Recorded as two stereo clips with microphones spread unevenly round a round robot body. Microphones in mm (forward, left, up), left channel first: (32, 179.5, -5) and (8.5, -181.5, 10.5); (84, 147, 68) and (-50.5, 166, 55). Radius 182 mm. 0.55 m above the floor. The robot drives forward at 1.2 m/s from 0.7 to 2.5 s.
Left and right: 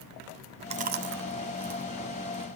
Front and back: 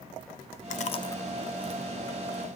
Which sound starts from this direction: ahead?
Chewing, at 0.7 s.